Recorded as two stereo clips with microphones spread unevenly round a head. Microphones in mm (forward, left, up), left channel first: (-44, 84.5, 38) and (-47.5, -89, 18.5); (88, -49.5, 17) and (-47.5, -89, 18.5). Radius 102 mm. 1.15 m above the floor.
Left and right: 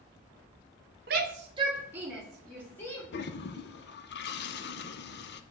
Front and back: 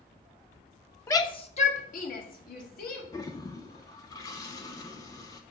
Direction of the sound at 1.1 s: 55° right.